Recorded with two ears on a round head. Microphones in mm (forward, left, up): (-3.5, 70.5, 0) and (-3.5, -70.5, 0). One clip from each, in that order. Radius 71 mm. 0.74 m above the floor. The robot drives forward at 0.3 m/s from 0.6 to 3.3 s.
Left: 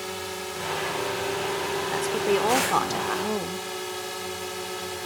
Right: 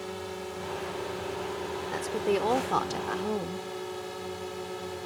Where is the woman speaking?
15° left (ahead or behind); by 3.7 s 20° left (ahead or behind).